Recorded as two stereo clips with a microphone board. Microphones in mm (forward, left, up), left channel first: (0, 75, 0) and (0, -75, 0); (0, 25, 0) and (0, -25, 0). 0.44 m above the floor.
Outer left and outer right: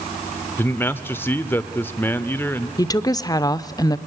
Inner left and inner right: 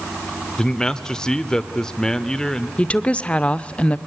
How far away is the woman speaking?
About 0.7 m.